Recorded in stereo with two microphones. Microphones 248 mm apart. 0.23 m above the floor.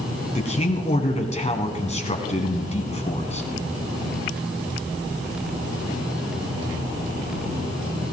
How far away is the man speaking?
About 1.8 m.